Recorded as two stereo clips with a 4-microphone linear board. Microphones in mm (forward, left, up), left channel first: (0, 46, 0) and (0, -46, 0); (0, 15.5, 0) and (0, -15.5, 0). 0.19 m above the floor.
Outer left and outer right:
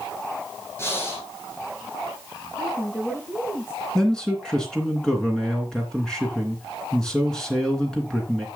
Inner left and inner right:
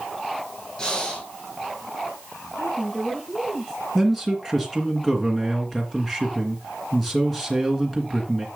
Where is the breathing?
25° left (ahead or behind), 3.5 m.